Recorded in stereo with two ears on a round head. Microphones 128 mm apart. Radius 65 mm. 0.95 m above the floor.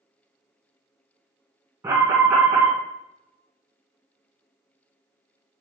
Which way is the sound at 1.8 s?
20° right (ahead or behind).